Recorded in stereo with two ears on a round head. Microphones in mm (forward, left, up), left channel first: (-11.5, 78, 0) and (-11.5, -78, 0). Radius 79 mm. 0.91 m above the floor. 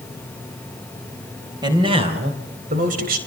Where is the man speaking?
25° right (ahead or behind), 4 m; by 3.2 s 55° right (ahead or behind), 4.5 m.